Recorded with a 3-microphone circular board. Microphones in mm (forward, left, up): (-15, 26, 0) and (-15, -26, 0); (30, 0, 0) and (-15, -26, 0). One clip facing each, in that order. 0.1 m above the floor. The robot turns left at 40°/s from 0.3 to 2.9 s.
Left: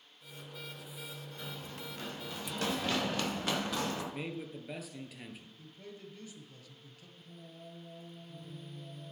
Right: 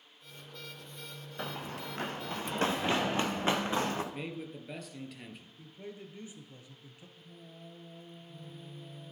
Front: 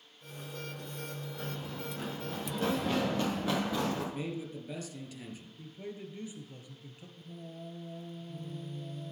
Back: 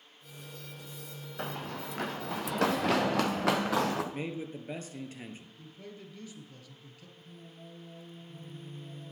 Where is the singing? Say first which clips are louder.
Left 1 dB, front 6 dB; 5° left, 2 m.